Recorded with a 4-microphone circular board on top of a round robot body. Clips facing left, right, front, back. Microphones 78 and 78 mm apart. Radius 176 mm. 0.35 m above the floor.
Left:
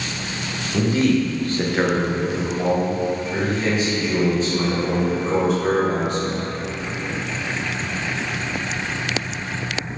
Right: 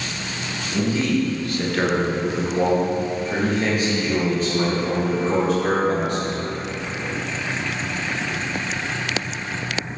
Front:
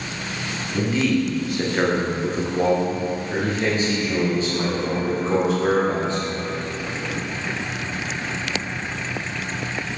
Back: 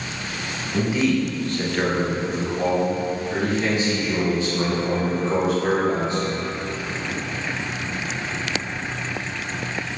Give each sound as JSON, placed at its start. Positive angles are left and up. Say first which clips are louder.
{"t": 0.7, "sound": "a man speaking", "louder": "left 3 dB, even", "azimuth_deg": 105, "distance_m": 1.4}